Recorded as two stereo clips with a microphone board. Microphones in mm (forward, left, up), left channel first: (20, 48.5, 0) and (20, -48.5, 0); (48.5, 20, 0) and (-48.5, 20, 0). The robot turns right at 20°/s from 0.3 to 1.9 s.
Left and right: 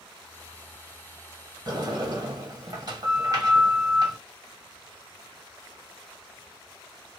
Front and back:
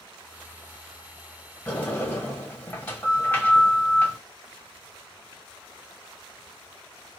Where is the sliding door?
75° right, 1.9 m; by 4.2 s 70° right, 1.9 m.